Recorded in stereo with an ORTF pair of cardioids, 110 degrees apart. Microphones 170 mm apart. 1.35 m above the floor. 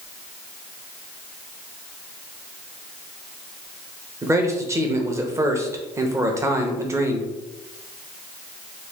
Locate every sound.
4.2 s a man speaking: 15° right, 0.8 m